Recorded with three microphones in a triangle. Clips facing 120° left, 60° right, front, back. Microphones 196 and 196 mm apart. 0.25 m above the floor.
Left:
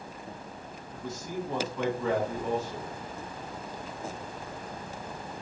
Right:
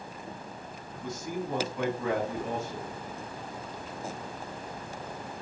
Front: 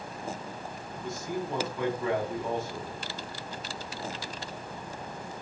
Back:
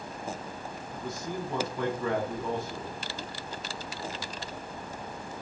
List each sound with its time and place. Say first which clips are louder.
0.9 s a man speaking: right 1 dB, front 2 dB; 130° right, 2 m